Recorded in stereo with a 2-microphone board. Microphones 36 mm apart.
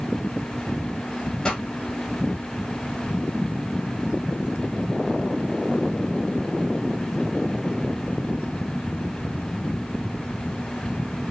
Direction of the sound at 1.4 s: 20° left (ahead or behind).